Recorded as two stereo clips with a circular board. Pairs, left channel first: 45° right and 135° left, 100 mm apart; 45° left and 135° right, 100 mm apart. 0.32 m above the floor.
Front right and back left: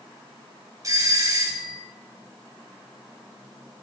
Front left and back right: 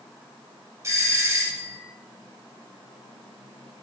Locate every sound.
0.8 s a doorbell: 175° left, 2.5 m